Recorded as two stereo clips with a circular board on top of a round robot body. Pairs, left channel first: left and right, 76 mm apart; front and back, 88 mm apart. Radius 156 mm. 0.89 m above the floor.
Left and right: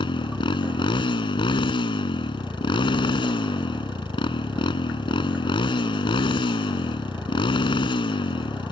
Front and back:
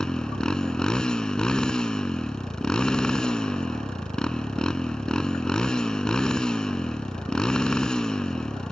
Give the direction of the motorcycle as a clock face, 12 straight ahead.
9 o'clock.